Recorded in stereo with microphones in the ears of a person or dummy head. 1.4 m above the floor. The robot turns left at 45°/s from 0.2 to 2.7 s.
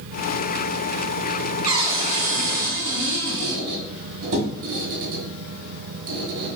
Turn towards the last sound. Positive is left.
turn(degrees=-60)  # may be behind; listen again after turning